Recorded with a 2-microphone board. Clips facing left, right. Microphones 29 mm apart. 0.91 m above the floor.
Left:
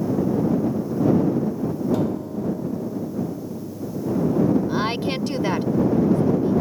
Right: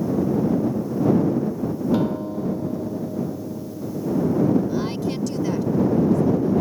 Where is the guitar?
25° right (ahead or behind).